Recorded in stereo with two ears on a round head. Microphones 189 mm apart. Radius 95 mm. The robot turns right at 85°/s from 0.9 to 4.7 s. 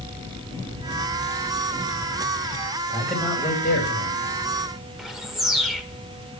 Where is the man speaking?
20° right, 7 m; by 4.3 s 100° left, 7 m.